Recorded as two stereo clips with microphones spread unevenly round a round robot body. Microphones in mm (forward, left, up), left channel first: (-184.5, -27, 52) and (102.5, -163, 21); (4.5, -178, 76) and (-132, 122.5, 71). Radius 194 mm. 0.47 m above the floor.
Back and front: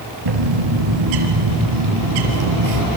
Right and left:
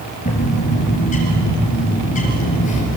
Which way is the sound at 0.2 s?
5° left.